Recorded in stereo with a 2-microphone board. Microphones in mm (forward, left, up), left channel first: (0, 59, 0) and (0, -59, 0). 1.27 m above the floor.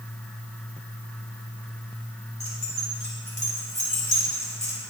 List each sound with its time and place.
2.4 s keys jangling: 75° left (ahead or behind), 4 m; by 4.7 s 85° left, 4 m